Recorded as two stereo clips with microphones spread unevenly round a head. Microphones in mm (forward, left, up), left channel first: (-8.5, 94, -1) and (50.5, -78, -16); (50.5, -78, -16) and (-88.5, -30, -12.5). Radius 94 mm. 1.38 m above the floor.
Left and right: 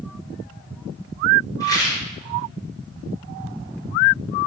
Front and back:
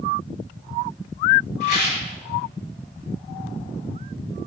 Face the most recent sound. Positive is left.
turn(degrees=40)